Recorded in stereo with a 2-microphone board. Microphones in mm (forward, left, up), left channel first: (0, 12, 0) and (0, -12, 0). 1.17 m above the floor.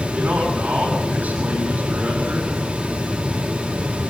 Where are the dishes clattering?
No dishes clattering in this recording.